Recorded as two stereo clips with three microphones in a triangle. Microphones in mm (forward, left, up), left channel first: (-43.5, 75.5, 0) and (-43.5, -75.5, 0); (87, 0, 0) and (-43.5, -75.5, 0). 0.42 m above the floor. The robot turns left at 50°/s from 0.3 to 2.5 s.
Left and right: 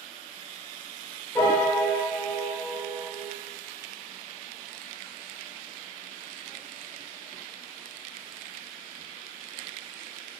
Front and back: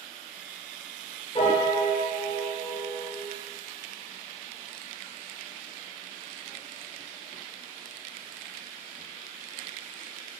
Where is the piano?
30° left, 0.8 m; by 3.3 s 25° right, 0.8 m.